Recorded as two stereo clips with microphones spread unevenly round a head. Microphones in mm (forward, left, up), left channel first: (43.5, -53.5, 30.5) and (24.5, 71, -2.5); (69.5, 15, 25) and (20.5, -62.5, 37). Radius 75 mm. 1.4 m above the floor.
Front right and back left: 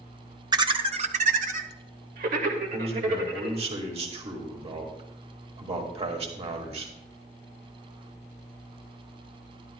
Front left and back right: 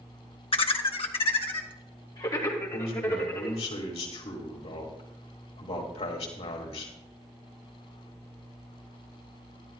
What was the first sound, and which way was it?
Laughter, 45° left.